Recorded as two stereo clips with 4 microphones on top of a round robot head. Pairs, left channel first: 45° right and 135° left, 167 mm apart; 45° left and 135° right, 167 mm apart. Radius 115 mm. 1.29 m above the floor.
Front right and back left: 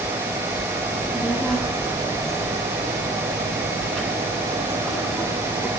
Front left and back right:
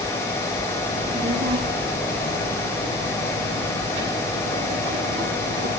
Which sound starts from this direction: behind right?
A child speaking, at 0.9 s.